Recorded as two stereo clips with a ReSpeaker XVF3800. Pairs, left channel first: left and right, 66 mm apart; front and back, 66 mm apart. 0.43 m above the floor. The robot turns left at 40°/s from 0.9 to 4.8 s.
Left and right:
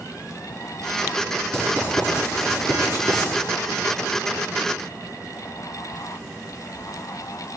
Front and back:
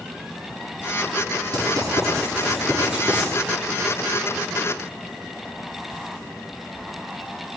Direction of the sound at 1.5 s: 165° left.